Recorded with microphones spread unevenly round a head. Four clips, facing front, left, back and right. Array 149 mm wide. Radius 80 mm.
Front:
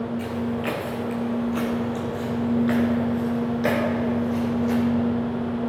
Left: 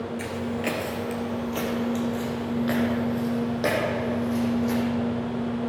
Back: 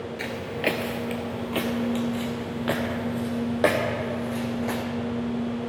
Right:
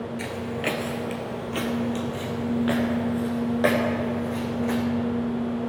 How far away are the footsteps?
About 1.1 m.